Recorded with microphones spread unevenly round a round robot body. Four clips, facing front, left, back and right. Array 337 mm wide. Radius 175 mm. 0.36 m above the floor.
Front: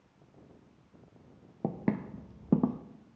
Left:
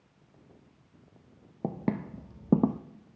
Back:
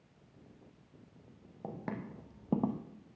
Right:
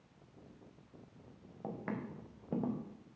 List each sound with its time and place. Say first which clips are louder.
1.6 s footsteps: left 9 dB, front 9 dB; 45° left, 1.2 m; by 2.8 s 80° left, 0.8 m